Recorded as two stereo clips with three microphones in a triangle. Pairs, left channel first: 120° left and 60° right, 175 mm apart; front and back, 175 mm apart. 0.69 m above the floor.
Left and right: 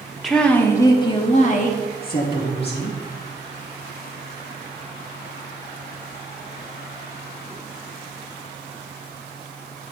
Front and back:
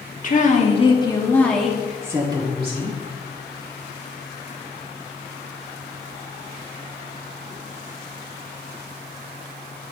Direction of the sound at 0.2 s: 30° left.